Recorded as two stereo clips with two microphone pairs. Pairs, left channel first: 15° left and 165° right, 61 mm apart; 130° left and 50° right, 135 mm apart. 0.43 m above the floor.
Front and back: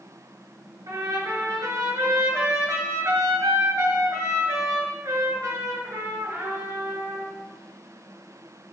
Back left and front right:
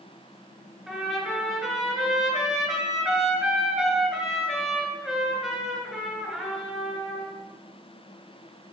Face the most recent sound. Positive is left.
turn(degrees=-135)